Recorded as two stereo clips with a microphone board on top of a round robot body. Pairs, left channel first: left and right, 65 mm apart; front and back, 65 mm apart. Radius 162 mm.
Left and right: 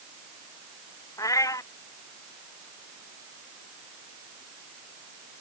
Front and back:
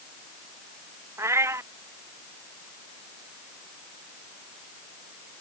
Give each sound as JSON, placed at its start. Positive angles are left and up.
{"t": 1.2, "sound": "a cat meowing", "azimuth_deg": 130}